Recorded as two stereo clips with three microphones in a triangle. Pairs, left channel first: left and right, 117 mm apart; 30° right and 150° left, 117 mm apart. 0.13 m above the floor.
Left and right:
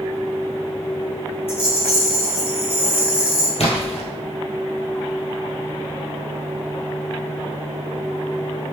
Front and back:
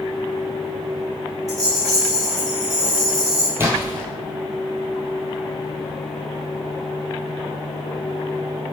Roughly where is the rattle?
Left.